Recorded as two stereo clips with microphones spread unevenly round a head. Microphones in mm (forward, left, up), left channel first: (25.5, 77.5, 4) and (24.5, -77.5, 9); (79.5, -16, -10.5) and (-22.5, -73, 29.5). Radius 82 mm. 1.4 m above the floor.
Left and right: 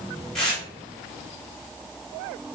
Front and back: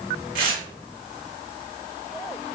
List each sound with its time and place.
0.3 s tearing paper: 175° left, 3 m